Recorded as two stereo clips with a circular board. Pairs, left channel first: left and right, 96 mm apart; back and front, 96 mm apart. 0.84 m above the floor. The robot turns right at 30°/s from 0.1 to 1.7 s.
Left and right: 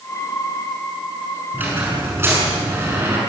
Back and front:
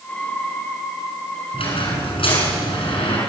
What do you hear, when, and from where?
1.5 s a squeak: 160° right, 6 m; by 3.2 s 155° right, 6 m